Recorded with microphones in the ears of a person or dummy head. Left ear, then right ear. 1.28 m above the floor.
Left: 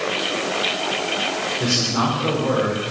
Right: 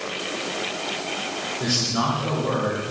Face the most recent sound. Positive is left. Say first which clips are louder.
# left 1 dB
turn(degrees=30)  # may be behind; listen again after turning